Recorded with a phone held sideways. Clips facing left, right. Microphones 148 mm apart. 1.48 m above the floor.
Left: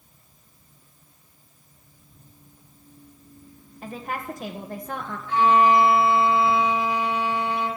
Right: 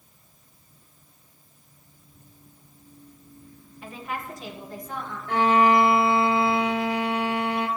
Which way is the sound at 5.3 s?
65° right (ahead or behind).